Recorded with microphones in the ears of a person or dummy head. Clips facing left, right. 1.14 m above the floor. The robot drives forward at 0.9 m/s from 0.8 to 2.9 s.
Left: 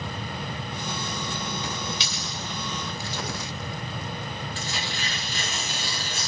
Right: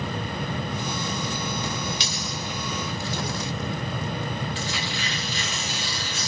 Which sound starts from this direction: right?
A dropped coin, at 2.0 s.